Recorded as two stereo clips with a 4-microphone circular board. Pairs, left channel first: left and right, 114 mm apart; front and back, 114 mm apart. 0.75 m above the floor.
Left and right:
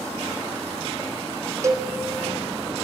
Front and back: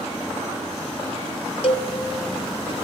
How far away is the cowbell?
About 1.5 m.